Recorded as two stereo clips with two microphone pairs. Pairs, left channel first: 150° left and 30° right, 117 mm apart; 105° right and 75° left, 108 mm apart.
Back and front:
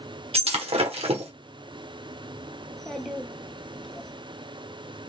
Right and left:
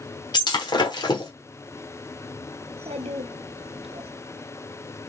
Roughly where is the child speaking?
Ahead left.